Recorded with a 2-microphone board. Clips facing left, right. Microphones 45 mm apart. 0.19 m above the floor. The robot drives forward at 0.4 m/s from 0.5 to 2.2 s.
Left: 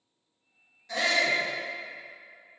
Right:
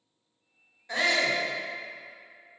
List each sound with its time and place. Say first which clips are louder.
0.9 s a shout: even; 25° right (ahead or behind), 1.3 m